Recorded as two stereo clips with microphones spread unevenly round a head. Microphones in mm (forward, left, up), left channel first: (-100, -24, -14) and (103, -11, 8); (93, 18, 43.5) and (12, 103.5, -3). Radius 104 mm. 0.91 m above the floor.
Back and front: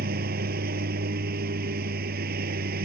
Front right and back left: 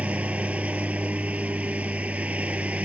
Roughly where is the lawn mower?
Ahead left.